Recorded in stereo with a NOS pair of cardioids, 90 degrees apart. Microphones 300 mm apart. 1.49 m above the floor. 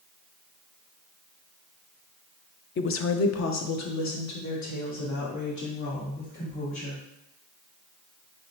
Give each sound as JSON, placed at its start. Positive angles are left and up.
{"t": 2.8, "sound": "a woman speaking", "azimuth_deg": 40, "distance_m": 0.5}